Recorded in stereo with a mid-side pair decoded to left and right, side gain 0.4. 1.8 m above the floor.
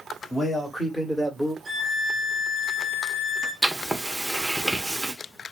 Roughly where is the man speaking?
Ahead left.